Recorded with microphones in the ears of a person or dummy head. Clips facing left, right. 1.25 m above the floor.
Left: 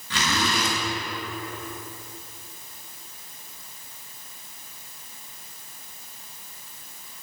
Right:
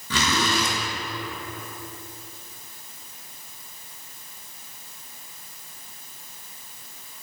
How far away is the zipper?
About 2.5 m.